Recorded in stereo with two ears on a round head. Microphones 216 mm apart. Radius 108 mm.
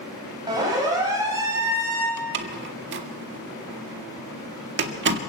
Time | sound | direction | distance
0.5 | a siren | 15° right (ahead or behind) | 9 m
2.2 | a door slam | 50° right (ahead or behind) | 2 m